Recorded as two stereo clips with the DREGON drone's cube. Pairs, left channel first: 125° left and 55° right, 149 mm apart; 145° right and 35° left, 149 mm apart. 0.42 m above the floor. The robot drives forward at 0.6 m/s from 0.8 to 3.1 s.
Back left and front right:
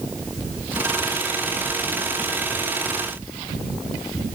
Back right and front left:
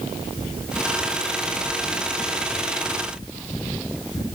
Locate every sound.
Only background noise.